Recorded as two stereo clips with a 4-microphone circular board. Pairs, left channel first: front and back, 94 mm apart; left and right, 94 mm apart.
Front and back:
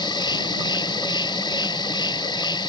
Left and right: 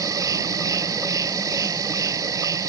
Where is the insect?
40° right.